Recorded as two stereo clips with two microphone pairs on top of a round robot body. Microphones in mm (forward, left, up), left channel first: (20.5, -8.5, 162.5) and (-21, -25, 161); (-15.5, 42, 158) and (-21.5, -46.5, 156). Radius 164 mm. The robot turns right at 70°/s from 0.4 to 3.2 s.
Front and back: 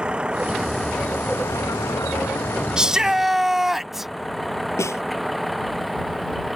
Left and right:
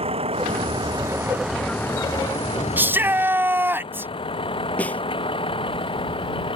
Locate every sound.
0.0 s a vehicle: 85° right; by 6.6 s 115° left
2.8 s a shout: 120° right; by 4.1 s 90° right
4.8 s a snare drum: 10° left